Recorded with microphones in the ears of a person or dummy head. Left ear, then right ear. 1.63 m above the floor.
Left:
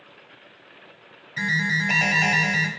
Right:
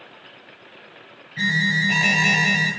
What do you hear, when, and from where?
1.4 s an alarm: 50° left (ahead or behind), 1.1 m